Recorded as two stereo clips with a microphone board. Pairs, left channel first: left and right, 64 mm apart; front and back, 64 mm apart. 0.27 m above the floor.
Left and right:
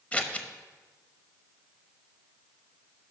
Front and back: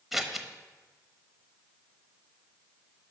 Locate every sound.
0.1 s scissors: 100° left, 0.9 m